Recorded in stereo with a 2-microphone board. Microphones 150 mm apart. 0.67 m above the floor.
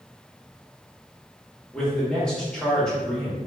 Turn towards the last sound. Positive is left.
turn(degrees=5)  # may be behind; listen again after turning